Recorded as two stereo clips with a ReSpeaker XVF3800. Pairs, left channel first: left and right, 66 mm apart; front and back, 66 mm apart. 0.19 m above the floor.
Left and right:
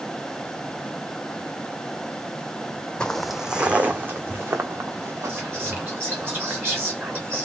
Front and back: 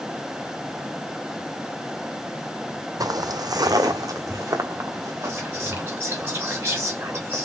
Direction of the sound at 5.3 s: 140° right.